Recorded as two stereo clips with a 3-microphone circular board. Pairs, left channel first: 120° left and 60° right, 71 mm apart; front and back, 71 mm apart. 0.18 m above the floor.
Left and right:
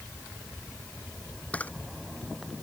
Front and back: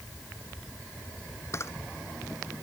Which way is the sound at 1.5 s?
50° left.